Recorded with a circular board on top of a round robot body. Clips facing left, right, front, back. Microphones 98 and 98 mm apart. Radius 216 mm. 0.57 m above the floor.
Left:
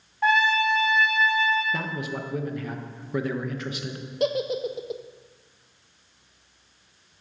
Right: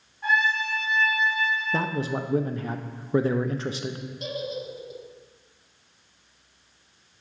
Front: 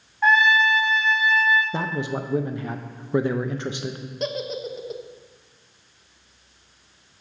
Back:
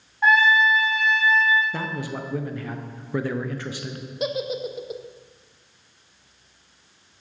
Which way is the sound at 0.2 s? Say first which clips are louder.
Left 4 dB, even; 95° left.